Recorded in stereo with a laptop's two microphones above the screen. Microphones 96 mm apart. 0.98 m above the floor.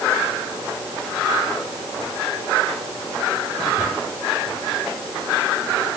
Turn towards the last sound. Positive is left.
No sound to turn to.